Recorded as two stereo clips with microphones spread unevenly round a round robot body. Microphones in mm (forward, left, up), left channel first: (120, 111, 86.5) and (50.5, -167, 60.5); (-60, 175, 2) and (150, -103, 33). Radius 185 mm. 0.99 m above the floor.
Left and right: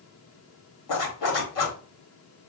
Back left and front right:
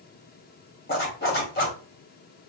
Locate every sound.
0.9 s a zipper: 65° left, 1.8 m